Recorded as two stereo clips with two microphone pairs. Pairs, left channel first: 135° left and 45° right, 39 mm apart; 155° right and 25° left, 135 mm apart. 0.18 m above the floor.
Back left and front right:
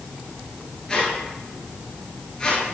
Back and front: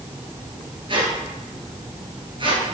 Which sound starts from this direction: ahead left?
A squeak, at 0.9 s.